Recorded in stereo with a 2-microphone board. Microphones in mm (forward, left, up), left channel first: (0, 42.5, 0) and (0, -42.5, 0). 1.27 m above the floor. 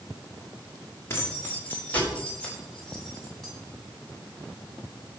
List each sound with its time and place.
1.1 s keys jangling: 30° left (ahead or behind), 3 m; by 3.5 s centre (ahead or behind), 5 m